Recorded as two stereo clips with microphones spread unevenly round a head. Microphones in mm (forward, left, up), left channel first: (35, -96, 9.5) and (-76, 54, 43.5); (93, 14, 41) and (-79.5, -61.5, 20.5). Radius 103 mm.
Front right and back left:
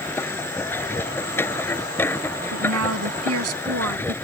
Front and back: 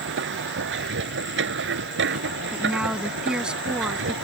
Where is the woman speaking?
115° left.